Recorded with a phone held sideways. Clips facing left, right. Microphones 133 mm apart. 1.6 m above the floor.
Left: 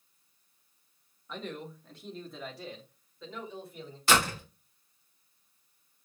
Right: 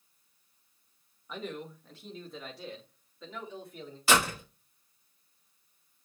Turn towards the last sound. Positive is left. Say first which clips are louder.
# even
turn(degrees=-5)  # may be behind; listen again after turning